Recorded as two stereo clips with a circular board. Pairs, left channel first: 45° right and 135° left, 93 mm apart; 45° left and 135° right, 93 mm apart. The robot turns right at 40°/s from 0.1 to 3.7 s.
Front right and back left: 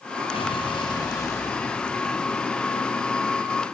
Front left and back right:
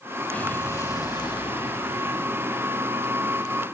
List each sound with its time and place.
0.3 s an explosion: 30° right, 2.0 m; by 3.5 s 100° left, 2.0 m